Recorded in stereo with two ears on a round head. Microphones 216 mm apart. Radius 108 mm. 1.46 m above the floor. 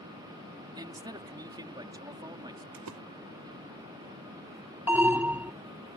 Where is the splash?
85° right.